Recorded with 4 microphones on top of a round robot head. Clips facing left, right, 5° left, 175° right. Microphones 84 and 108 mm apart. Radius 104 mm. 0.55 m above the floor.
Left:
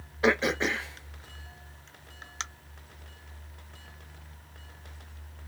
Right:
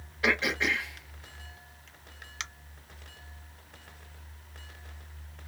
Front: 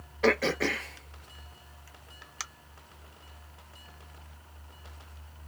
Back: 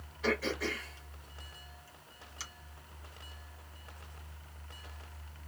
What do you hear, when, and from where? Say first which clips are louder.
0.2 s throat clearing: left 3 dB, front 7 dB; 30° left, 0.6 m